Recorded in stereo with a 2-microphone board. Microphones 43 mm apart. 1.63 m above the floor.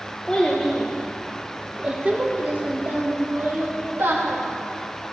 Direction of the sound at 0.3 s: 20° left (ahead or behind).